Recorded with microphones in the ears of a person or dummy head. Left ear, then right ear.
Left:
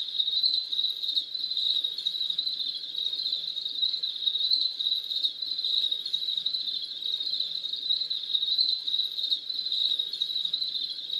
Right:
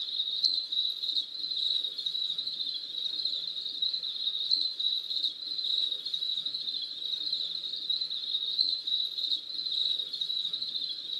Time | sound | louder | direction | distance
0.0 | an insect | left 3 dB | 10° left (ahead or behind) | 1.1 m